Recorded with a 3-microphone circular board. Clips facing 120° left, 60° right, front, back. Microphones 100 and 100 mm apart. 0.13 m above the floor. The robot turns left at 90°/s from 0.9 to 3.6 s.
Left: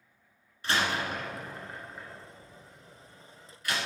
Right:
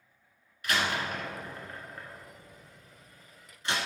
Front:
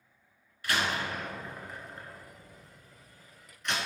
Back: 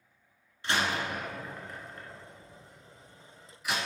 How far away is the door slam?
About 1.2 m.